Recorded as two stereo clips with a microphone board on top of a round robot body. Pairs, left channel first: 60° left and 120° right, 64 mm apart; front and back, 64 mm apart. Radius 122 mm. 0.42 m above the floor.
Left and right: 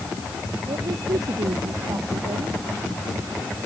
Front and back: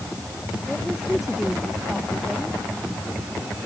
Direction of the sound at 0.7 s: 95° right.